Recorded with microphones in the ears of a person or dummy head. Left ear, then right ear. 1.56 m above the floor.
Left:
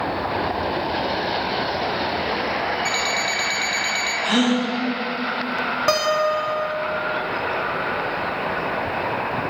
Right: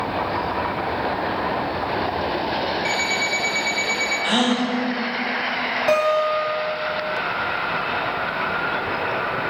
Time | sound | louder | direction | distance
2.9 | an alarm clock | even | 10° right (ahead or behind) | 1.0 m
4.2 | a gasp | even | 45° right (ahead or behind) | 2.5 m
5.9 | a guitar | right 1 dB | 25° left (ahead or behind) | 1.1 m